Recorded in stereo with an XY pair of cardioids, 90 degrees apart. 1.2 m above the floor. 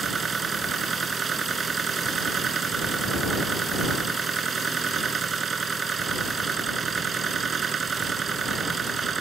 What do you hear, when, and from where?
0.0 s a machine running: 50° right